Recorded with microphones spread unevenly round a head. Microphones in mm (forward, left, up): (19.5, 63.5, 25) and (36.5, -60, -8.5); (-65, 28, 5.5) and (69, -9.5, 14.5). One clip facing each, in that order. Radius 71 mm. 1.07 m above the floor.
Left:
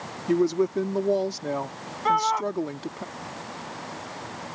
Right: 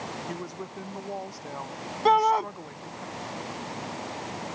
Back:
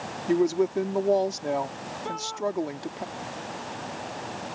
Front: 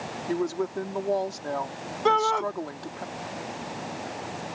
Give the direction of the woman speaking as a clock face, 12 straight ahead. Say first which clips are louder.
Left 15 dB, back 6 dB; 9 o'clock.